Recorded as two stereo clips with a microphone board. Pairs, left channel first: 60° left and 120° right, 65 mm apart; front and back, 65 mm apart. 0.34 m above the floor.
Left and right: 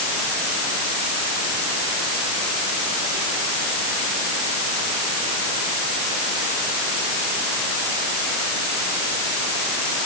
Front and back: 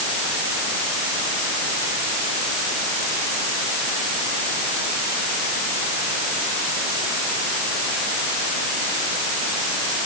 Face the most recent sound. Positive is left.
No sound to turn to.